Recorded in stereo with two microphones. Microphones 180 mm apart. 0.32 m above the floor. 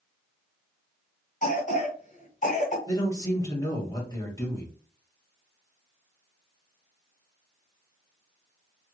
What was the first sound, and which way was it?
A cough, 50° left (ahead or behind).